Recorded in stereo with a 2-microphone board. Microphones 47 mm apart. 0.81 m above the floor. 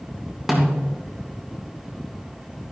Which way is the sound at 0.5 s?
10° right (ahead or behind).